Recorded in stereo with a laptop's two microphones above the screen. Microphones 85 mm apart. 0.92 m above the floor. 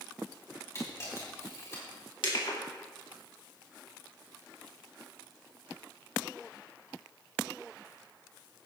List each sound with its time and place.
0.8 s a camera shutter: 35° left (ahead or behind), 3.5 m
2.2 s crushing: 75° left (ahead or behind), 2 m